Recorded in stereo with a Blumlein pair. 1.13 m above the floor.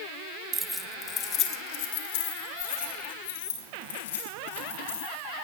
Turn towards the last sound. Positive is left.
turn(degrees=60)